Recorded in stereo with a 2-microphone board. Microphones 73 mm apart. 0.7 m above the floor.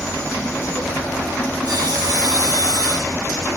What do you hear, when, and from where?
1.6 s sawing: 80° right, 5.5 m